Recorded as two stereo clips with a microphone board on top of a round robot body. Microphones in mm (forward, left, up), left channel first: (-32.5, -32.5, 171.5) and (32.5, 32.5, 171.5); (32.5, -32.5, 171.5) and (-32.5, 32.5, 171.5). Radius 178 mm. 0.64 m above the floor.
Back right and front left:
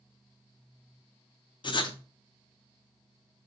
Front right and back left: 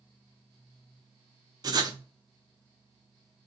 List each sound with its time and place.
1.6 s writing: 175° right, 0.7 m